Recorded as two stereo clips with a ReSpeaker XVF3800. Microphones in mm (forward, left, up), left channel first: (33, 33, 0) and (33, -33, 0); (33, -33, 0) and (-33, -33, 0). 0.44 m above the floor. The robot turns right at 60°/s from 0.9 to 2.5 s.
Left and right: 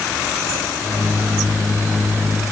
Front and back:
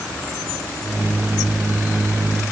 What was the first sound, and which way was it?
Only background noise.